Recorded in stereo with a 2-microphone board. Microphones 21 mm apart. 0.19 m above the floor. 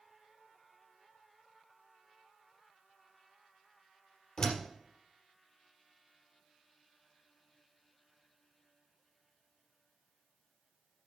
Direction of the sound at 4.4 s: 35° left (ahead or behind).